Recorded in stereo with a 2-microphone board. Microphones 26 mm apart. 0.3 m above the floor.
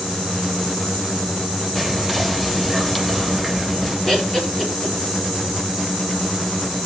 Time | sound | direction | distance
1.8 | whispering | 5° left (ahead or behind) | 1.1 m
4.1 | laughter | 25° left (ahead or behind) | 6 m